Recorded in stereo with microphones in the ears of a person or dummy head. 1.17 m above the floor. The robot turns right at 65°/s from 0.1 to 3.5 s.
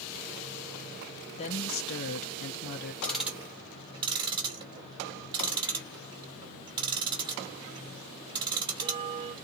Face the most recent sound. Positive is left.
turn(degrees=-25)  # may be behind; listen again after turning